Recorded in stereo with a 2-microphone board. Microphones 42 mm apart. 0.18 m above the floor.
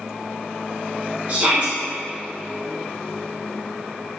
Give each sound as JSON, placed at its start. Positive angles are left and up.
{"t": 1.3, "sound": "a shout", "side_deg": -35, "distance_m": 1.7}